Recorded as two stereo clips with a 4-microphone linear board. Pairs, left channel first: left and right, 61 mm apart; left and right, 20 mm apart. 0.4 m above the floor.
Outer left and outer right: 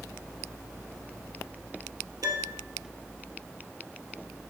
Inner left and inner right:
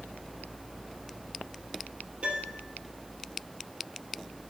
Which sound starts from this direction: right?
A piano, at 2.2 s.